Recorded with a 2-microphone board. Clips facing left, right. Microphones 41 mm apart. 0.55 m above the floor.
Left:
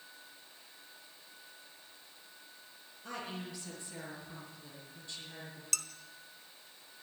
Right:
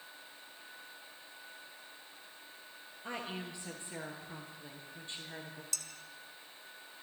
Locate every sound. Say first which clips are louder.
3.0 s a woman speaking: right 1 dB; 25° right (ahead or behind), 9.5 m; by 5.6 s 35° right (ahead or behind), 8.5 m
5.7 s dishes clattering: left 8 dB; 65° left (ahead or behind), 1.7 m